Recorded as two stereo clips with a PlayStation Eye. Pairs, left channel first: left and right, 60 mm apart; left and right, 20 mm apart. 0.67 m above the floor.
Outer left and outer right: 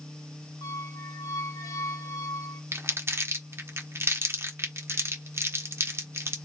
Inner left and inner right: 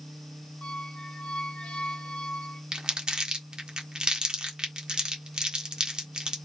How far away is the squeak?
About 0.7 m.